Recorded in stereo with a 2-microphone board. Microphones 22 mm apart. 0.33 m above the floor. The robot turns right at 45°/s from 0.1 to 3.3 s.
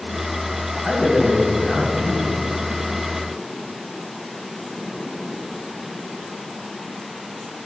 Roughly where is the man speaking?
Ahead right.